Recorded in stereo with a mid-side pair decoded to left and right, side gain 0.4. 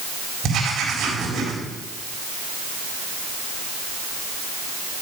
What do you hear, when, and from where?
0.4 s writing: 70° right, 4 m